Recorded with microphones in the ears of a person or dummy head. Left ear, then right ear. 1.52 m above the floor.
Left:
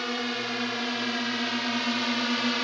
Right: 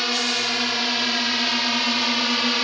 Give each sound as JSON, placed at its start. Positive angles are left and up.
{"t": 0.0, "sound": "a drone", "side_deg": -30}